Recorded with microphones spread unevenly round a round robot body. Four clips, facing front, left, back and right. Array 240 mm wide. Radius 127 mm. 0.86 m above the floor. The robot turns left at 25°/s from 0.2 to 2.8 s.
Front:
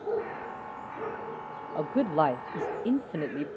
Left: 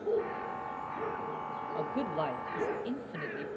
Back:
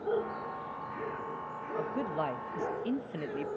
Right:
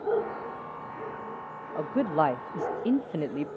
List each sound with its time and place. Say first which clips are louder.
1.8 s a man speaking: right 9 dB, front 8 dB; 25° right, 0.6 m; by 3.5 s 50° right, 0.6 m